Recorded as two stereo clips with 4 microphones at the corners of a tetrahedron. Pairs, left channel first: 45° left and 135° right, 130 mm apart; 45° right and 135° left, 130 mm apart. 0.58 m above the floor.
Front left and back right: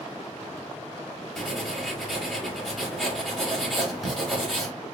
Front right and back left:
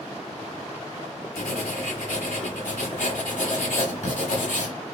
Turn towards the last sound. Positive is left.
turn(degrees=-45)